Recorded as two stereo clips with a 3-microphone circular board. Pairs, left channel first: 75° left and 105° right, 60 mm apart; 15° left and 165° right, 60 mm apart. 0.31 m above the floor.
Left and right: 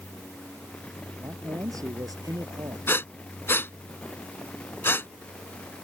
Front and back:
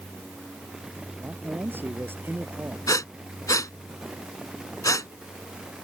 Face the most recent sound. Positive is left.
turn(degrees=25)